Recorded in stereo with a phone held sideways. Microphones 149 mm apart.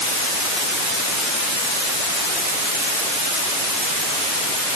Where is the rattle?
No rattle in this recording.